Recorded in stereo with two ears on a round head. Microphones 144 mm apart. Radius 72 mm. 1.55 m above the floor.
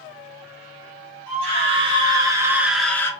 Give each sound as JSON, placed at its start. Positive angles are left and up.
{"t": 1.3, "sound": "a scream", "side_deg": -40, "distance_m": 1.5}